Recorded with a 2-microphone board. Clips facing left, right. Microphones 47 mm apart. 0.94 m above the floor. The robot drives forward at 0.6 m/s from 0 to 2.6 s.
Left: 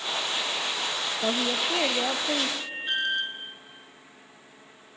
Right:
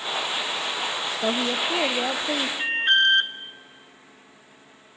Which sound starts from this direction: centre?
A woman speaking, at 1.2 s.